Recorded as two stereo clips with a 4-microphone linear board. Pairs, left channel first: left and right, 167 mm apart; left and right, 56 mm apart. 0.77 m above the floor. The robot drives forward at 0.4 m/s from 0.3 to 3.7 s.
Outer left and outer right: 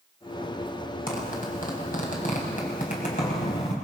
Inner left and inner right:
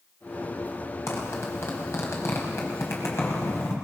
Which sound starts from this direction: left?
A zipper, at 1.1 s.